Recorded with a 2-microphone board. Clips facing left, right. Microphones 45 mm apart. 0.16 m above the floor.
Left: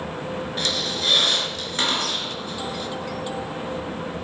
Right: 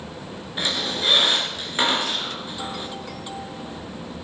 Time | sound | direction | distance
0.6 | a squeak | 15° right (ahead or behind) | 1.7 m